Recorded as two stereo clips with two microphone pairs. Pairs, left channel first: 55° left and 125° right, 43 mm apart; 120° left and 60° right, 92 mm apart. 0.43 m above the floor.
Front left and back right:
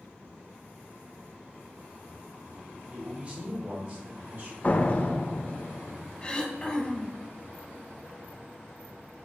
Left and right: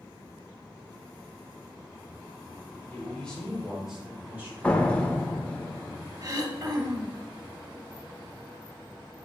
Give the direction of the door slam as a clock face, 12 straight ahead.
11 o'clock.